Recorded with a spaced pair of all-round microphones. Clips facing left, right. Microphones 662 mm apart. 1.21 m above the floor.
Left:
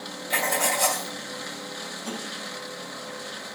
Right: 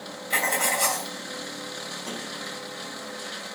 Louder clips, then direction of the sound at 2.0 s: Left 2 dB; 15° left (ahead or behind).